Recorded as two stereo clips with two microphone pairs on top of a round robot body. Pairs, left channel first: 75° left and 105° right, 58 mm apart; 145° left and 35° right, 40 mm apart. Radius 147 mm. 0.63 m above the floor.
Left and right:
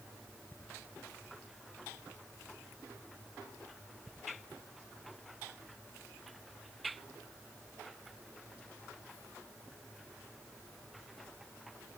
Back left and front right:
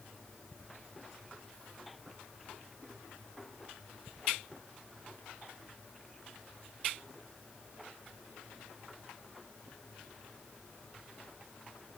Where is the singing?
I don't hear singing.